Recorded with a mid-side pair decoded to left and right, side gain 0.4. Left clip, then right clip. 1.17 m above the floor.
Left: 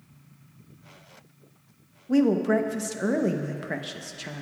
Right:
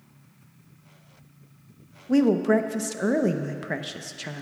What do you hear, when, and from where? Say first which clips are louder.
2.1 s a woman speaking: right 2 dB; 20° right, 0.8 m